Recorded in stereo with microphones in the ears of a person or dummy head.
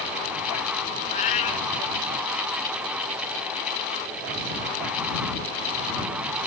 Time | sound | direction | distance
1.1 | a cat meowing | 35° left (ahead or behind) | ?